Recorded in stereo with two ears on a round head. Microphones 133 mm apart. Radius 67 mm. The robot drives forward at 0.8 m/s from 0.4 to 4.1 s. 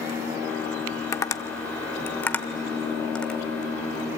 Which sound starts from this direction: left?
Tapping, at 1.1 s.